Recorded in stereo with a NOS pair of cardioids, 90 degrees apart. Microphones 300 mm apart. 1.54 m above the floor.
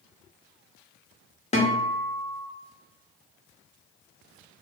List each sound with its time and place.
1.5 s a guitar: 25° left, 0.8 m